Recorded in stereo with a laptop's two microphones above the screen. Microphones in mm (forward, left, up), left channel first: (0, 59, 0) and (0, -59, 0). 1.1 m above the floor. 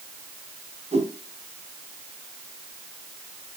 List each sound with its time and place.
0.9 s a whoosh: 75° right (ahead or behind), 3 m